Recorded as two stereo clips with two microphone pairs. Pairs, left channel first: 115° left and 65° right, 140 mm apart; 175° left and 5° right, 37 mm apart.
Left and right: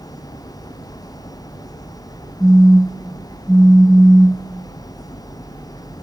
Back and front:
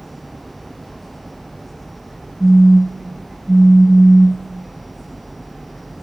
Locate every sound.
2.4 s a phone buzzing: 170° right, 1.5 m